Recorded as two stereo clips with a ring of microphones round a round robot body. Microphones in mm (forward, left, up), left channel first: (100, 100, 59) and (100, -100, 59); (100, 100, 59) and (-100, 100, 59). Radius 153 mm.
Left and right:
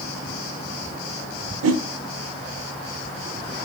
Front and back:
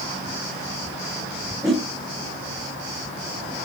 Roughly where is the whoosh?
Right.